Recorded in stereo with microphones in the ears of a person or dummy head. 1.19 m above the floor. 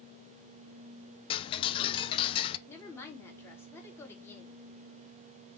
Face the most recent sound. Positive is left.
turn(degrees=10)  # may be behind; listen again after turning